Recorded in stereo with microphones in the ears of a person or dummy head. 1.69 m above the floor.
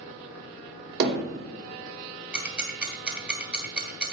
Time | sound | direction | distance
1.0 | hammering | 65° right (ahead or behind) | 2.5 m
2.3 | ticking | 5° right (ahead or behind) | 1.5 m